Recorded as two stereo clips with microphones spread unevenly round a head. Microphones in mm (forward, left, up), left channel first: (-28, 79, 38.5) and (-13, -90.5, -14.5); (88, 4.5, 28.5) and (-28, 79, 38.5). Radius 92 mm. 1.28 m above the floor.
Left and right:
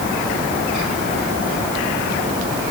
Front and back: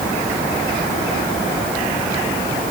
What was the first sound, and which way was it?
Only background noise.